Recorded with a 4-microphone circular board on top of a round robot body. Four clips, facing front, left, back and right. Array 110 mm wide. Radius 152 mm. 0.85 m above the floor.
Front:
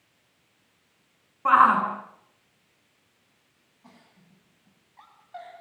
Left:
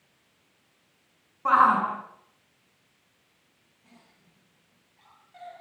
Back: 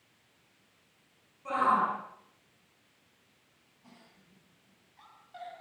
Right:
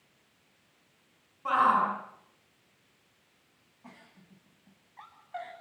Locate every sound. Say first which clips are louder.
1.4 s a shout: left 5 dB, front 9 dB; 30° left, 9.5 m
3.8 s a giggle: right 5 dB, front 3 dB; 60° right, 9.5 m